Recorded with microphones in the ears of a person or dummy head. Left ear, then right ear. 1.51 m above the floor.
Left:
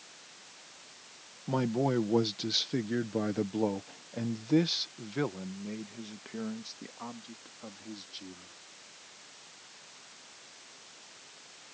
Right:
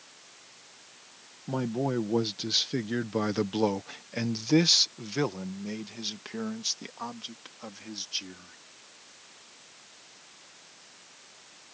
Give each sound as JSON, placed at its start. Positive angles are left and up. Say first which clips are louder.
{"t": 1.5, "sound": "a man speaking", "louder": "left 1 dB", "side_deg": 15}